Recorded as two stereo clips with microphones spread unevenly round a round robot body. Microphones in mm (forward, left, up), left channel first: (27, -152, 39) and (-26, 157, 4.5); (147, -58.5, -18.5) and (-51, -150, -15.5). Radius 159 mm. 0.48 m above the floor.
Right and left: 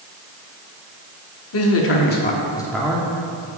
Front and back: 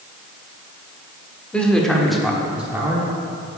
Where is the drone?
I don't hear a drone.